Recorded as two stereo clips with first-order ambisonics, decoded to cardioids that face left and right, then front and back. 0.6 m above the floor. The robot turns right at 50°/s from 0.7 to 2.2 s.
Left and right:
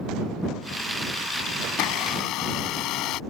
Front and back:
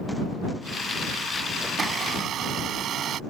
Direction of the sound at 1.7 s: 105° left.